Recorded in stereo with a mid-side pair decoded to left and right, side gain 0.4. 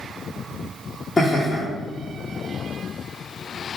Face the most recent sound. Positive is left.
turn(degrees=25)